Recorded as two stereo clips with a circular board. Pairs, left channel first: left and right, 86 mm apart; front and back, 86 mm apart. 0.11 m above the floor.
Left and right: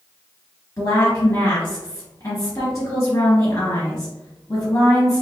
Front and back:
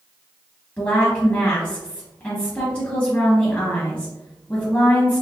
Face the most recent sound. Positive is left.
turn(degrees=60)